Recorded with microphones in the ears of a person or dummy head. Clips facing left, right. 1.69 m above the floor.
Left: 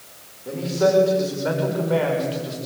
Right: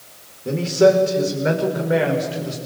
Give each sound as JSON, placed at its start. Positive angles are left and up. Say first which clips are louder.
{"t": 0.5, "sound": "a man speaking", "louder": "right 5 dB", "side_deg": -35, "distance_m": 5.0}